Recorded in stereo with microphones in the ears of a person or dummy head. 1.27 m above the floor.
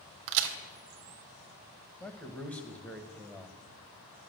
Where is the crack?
65° right (ahead or behind), 1.2 m.